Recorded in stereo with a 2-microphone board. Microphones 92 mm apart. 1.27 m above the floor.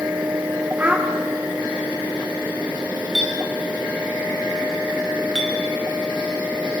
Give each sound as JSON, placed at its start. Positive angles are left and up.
{"t": 0.8, "sound": "a child speaking", "side_deg": -15, "distance_m": 2.0}
{"t": 3.1, "sound": "a clink", "side_deg": 0, "distance_m": 5.5}